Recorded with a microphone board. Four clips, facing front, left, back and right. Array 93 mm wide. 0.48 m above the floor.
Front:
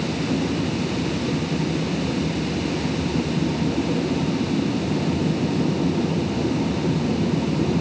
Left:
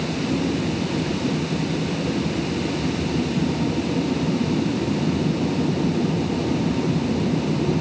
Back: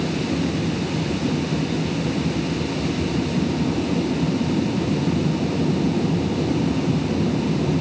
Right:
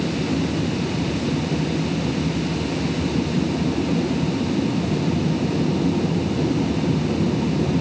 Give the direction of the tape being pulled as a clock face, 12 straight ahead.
I don't hear tape being pulled.